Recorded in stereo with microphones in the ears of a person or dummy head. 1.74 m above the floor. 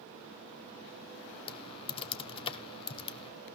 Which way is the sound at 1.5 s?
30° left (ahead or behind).